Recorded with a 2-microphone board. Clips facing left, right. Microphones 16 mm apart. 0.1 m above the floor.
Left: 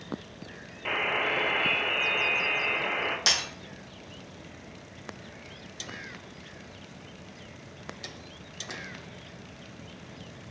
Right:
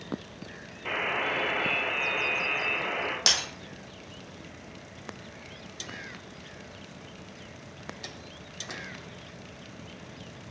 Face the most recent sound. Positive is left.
turn(degrees=-15)  # may be behind; listen again after turning